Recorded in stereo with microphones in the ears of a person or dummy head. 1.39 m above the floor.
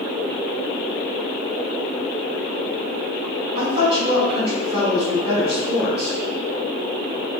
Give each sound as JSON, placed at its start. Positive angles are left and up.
{"t": 3.5, "sound": "a woman speaking", "side_deg": -35, "distance_m": 2.0}